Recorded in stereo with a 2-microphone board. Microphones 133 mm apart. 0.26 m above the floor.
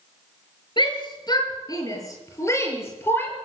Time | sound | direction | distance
0.8 | a shout | 40° left (ahead or behind) | 6 m